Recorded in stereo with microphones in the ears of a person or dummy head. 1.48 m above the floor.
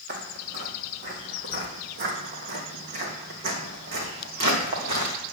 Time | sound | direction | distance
0.1 | footsteps | 40° right (ahead or behind) | 1.9 m